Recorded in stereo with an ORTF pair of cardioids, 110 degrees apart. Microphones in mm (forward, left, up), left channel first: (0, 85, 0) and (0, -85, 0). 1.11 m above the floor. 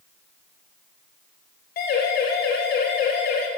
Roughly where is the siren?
Ahead left.